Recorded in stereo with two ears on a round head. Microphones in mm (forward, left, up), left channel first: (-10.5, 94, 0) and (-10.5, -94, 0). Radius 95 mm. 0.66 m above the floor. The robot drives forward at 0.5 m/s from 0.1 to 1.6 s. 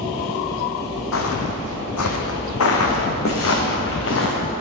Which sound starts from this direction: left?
Footsteps, at 1.1 s.